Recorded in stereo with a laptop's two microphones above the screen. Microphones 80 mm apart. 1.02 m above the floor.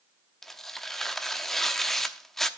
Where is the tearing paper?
5° left (ahead or behind), 0.9 m.